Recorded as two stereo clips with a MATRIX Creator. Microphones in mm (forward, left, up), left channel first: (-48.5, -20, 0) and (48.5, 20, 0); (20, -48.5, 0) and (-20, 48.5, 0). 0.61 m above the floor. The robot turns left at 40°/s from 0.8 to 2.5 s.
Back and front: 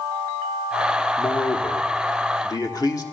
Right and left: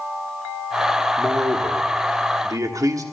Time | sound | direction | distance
1.2 | a man speaking | 145° right | 1.2 m